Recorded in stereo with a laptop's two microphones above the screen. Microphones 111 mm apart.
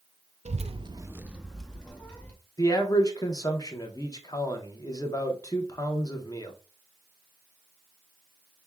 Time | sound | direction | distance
0.5 | a child speaking | 70° right (ahead or behind) | 0.5 m
2.6 | a man speaking | 30° left (ahead or behind) | 0.8 m